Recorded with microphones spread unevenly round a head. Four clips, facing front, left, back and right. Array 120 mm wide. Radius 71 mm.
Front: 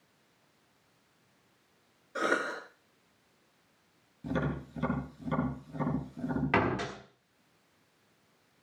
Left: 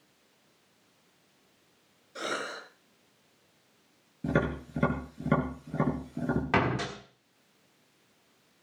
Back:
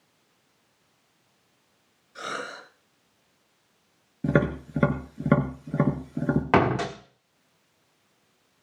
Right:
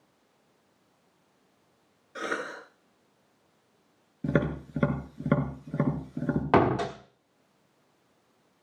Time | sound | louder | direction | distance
2.1 | a cough | right 2 dB, front 4 dB | 20° right | 6.5 m
4.2 | tapping | right 1 dB, back 10 dB | 165° right | 3.5 m
6.5 | a door slam | right 8 dB, back 8 dB | 135° right | 1.4 m